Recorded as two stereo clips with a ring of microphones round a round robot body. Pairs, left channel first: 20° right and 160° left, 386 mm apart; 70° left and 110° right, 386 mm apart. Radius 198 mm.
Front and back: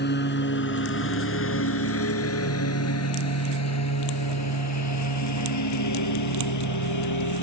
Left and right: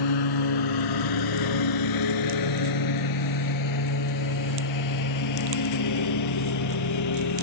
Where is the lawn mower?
40° left; by 7.5 s 20° left.